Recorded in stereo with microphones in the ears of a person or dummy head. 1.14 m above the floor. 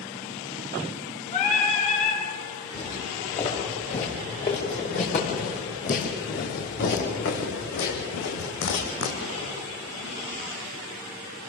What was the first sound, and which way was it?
Singing, 40° left (ahead or behind).